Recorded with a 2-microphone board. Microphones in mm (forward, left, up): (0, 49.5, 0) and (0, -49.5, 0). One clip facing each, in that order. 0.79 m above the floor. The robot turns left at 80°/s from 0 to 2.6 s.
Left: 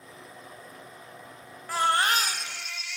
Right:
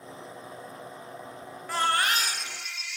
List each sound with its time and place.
1.7 s a baby crying: straight behind, 1.5 m; by 3.0 s 105° left, 1.5 m